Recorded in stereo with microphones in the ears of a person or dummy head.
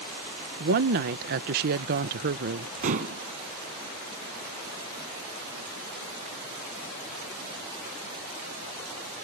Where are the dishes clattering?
45° right (ahead or behind).